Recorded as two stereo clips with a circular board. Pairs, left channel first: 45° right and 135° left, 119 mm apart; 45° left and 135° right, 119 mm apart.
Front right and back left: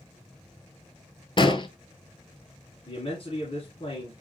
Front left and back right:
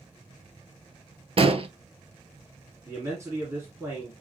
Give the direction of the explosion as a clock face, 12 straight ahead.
3 o'clock.